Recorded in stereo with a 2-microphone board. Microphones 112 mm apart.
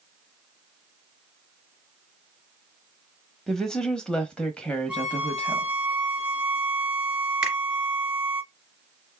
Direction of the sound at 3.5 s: 5° left (ahead or behind).